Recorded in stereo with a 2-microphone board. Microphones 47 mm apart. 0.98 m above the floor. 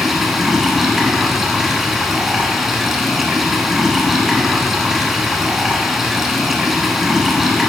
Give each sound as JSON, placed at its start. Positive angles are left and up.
{"t": 0.0, "sound": "running water", "side_deg": -5, "distance_m": 1.3}